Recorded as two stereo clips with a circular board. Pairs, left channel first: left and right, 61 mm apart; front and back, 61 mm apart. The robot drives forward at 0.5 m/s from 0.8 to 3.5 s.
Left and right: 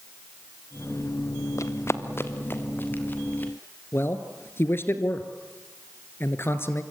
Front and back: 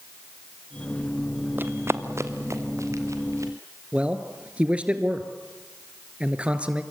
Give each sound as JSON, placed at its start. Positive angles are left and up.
{"t": 1.6, "sound": "running footsteps", "azimuth_deg": 125, "distance_m": 1.3}
{"t": 3.9, "sound": "a man speaking", "azimuth_deg": 120, "distance_m": 1.6}